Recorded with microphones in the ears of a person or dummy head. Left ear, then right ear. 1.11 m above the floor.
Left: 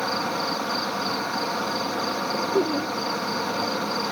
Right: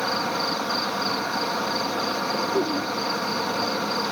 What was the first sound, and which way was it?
An insect, 10° right (ahead or behind).